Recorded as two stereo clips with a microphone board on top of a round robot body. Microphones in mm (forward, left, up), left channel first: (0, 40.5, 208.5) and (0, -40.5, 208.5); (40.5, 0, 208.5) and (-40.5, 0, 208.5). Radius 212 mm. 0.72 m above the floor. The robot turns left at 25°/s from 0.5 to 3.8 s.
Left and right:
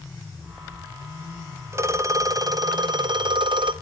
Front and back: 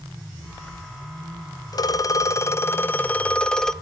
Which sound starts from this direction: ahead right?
A phone ringing, at 1.7 s.